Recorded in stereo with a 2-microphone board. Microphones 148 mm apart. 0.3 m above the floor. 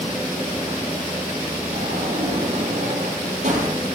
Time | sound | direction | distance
1.7 | a sliding door | 55° right (ahead or behind) | 7.5 m